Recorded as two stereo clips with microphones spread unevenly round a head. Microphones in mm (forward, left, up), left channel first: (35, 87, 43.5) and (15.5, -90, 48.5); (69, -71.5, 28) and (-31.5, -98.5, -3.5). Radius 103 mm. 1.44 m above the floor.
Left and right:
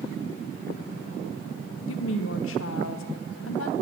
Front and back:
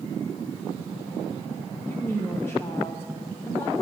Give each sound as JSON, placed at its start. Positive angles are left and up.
{"t": 1.9, "sound": "a woman speaking", "azimuth_deg": 80, "distance_m": 0.7}